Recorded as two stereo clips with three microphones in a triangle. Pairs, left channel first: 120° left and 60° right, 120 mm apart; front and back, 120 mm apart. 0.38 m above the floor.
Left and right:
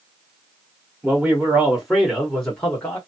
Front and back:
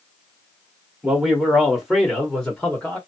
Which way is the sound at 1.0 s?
115° right.